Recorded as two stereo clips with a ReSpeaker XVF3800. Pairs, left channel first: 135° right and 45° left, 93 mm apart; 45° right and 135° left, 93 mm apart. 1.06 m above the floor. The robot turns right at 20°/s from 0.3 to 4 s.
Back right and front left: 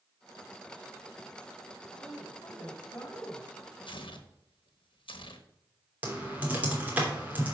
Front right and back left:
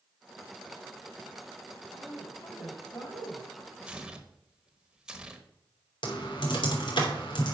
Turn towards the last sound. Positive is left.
turn(degrees=-25)